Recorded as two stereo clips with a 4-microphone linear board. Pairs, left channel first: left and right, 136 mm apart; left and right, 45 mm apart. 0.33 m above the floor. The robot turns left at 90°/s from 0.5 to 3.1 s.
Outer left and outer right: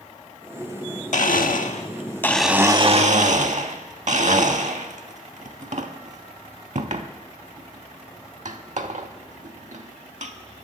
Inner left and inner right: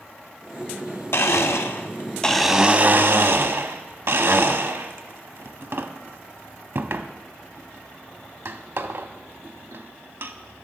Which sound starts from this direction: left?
A blender, at 1.1 s.